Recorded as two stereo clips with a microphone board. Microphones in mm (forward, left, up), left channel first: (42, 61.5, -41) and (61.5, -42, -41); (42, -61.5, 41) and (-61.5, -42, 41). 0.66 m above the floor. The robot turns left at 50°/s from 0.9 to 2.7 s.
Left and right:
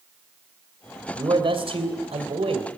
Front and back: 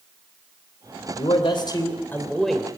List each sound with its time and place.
1.1 s a man speaking: 30° right, 3 m; by 2.7 s 110° right, 3 m